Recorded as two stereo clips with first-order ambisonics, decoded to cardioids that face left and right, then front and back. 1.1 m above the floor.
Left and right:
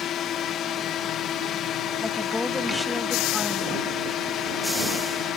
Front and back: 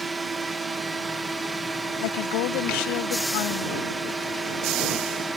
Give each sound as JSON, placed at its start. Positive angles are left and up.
{"t": 0.0, "sound": "a drone", "azimuth_deg": 110}
{"t": 2.0, "sound": "a woman speaking", "azimuth_deg": 5}